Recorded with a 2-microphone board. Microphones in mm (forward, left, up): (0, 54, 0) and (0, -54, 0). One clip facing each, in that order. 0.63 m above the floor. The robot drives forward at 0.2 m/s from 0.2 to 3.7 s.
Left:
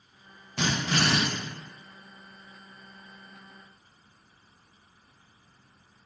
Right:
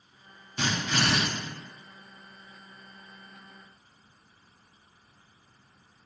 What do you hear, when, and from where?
0.6 s a drill: 70° left (ahead or behind), 1.0 m; by 1.2 s 75° left (ahead or behind), 0.9 m